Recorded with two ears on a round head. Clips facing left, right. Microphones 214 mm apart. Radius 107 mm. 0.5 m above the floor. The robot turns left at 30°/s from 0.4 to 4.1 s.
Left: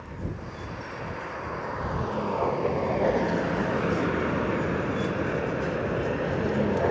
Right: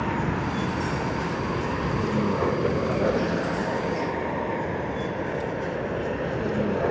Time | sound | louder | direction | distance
0.0 | a vehicle | right 10 dB | 75° right (ahead or behind) | ?